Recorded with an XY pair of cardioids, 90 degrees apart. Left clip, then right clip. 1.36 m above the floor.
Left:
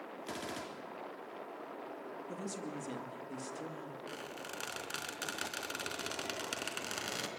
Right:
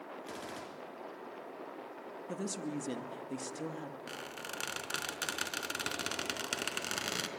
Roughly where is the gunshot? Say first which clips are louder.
Left 4 dB; ahead left.